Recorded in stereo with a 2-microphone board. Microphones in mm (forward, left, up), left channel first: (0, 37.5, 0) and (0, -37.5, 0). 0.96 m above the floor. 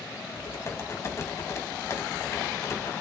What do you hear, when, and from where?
0.3 s typing on a keyboard: 40° left (ahead or behind), 2.5 m